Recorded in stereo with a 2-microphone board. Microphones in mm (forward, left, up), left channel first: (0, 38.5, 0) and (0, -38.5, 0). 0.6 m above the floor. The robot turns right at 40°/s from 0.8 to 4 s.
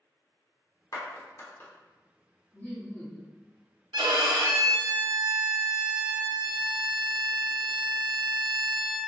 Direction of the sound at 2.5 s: 50° left.